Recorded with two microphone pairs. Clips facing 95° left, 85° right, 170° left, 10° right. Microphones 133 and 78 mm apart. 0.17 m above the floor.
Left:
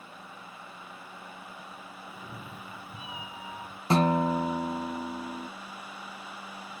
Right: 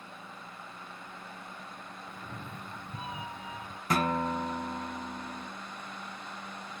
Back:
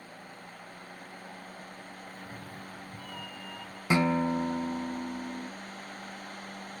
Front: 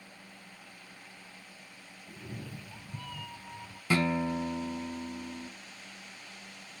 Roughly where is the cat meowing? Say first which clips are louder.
Even, back 1 dB; ahead left.